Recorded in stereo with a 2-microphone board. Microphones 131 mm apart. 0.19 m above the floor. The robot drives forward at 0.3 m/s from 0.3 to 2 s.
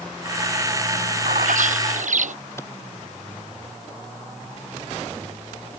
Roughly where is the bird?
Right.